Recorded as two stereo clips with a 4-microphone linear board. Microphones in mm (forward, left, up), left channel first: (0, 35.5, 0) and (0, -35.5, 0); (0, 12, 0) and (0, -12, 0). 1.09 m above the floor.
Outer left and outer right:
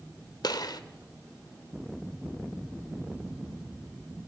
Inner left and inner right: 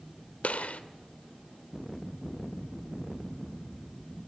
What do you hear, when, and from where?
0.4 s a gunshot: 75° left (ahead or behind), 1.7 m